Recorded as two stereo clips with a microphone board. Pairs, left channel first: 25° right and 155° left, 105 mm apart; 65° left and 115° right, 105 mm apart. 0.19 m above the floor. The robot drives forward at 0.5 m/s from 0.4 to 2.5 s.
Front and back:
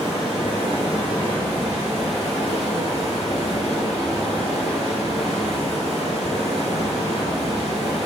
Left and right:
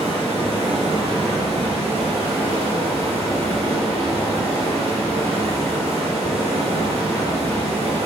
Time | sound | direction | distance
0.0 | running water | 120° right | 3 m